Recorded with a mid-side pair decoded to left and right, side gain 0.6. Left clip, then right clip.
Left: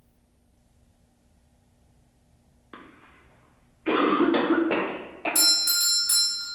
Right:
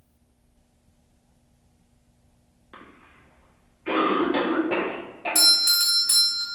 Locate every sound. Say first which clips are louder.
2.7 s a cough: even; 30° left, 0.8 m
5.3 s a doorbell: right 4 dB; 20° right, 1.5 m